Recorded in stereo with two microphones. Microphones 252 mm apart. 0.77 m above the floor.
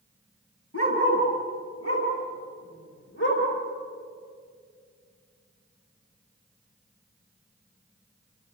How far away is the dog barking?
About 6.5 m.